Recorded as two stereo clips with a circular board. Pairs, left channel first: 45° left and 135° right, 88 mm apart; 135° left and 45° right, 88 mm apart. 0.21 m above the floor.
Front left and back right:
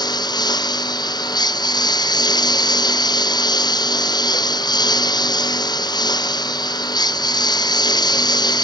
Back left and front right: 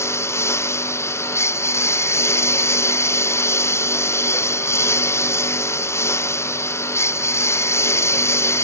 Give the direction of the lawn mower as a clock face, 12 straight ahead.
9 o'clock.